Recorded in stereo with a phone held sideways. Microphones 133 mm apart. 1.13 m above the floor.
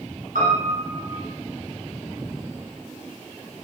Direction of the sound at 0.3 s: 75° right (ahead or behind).